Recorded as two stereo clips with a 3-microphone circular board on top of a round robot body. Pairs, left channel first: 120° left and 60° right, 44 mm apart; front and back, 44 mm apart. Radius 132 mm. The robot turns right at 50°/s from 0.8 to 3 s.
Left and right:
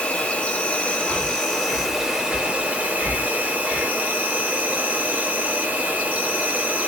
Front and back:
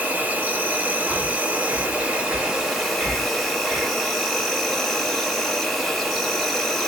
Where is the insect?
165° left, 0.9 m; by 6.9 s 85° right, 0.9 m.